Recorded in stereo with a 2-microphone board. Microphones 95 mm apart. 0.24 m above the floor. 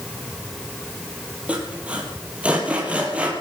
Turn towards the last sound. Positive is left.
turn(degrees=-15)  # may be behind; listen again after turning